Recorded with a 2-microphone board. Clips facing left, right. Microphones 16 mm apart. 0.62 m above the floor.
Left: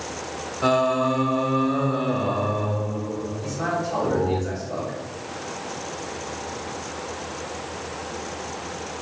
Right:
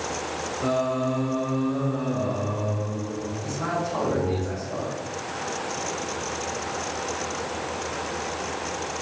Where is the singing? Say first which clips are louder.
Left 5 dB; 60° left (ahead or behind), 0.6 m.